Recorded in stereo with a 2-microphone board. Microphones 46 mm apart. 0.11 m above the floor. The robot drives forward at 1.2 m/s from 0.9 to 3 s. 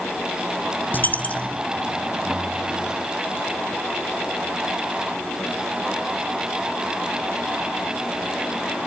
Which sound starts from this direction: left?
A dropped coin, at 0.9 s.